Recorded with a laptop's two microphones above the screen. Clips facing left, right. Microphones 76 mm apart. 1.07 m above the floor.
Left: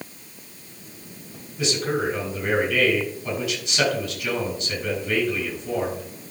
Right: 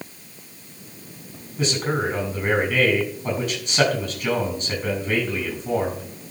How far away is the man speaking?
About 6 m.